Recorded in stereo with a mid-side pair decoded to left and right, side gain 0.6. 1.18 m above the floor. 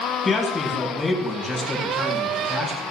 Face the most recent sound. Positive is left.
turn(degrees=30)